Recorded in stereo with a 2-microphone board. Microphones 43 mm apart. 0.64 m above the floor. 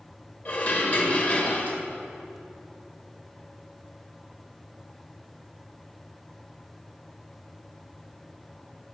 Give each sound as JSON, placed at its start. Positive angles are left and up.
{"t": 0.5, "sound": "dishes clattering", "side_deg": 45, "distance_m": 1.7}